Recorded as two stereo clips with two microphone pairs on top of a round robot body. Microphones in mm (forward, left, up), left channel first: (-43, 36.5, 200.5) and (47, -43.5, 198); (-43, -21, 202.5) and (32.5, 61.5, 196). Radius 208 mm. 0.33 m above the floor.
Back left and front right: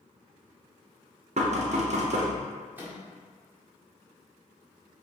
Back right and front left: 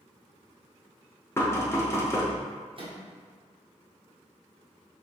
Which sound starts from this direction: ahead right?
Knocking, at 1.4 s.